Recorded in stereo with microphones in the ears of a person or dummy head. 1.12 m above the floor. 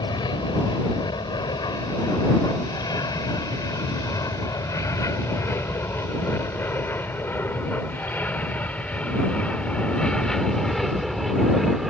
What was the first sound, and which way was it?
An aircraft, 20° left (ahead or behind).